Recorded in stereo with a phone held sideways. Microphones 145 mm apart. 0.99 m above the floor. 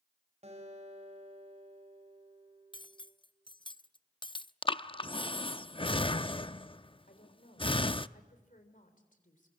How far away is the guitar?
About 5.5 m.